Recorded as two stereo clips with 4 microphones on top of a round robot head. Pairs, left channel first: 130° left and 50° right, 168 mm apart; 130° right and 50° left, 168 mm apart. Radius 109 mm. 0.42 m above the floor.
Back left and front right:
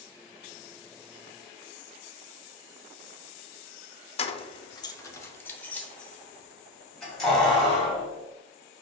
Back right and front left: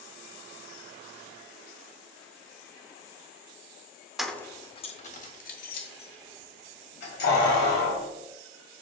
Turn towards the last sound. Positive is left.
turn(degrees=-135)